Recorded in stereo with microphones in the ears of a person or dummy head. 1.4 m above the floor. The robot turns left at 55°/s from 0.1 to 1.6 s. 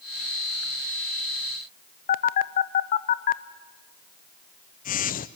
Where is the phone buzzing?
40° left (ahead or behind), 0.6 m.